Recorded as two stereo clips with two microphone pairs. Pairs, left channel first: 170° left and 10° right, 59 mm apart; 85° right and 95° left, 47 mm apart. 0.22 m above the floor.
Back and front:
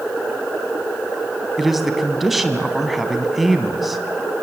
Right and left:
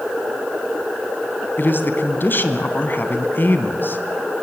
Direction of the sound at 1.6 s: 95° right.